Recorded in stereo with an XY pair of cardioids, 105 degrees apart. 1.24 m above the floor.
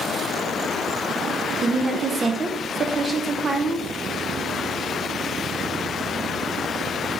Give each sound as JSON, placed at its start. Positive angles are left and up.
{"t": 1.6, "sound": "a woman speaking", "azimuth_deg": -30, "distance_m": 0.6}